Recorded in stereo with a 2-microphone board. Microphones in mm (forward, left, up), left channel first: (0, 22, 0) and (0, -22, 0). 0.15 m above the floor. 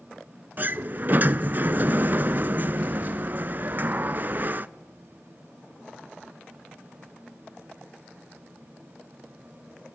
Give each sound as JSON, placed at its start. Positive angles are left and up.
{"t": 0.6, "sound": "a sliding door", "side_deg": -45, "distance_m": 0.5}